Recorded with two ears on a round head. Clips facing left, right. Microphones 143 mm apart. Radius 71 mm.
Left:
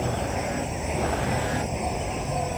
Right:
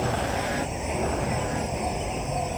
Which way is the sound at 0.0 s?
Centre (ahead or behind).